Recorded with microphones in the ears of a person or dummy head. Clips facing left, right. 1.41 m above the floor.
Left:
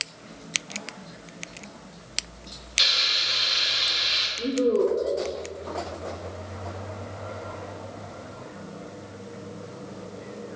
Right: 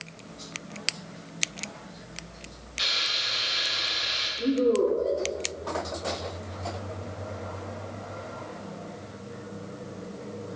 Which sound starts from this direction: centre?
A woman speaking, at 4.4 s.